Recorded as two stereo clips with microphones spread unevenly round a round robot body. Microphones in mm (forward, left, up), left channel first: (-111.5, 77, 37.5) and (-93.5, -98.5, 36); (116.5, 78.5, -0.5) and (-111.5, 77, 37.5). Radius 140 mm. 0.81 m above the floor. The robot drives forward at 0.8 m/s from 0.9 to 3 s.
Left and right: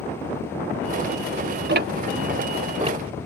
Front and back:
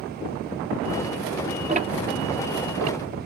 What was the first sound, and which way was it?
Ticking, 110° right.